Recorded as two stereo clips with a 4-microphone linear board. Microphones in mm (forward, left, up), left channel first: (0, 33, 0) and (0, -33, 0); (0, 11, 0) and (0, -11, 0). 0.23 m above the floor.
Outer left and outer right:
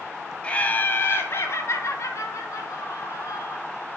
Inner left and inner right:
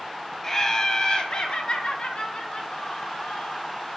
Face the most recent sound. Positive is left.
turn(degrees=55)  # may be behind; listen again after turning